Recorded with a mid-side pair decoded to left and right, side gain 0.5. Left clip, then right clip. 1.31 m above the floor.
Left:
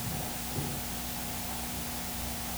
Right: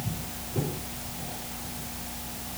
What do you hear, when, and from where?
Only background noise.